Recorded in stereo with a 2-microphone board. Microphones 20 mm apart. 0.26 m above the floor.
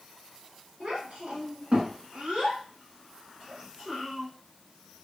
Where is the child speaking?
70° right (ahead or behind), 1.8 m; by 4.3 s 20° right (ahead or behind), 1.8 m.